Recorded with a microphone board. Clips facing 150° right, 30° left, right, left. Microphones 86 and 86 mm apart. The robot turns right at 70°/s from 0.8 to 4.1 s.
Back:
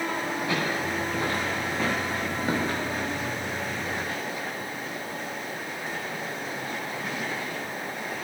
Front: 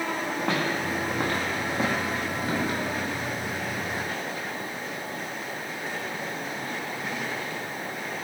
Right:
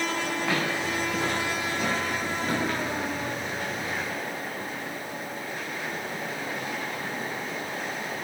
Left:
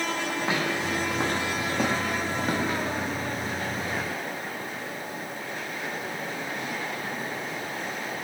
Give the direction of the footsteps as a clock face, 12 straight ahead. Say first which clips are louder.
Front 2 dB, left 1 dB; 11 o'clock.